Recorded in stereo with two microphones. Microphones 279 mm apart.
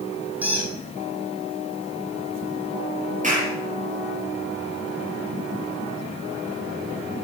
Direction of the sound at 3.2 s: 25° right (ahead or behind).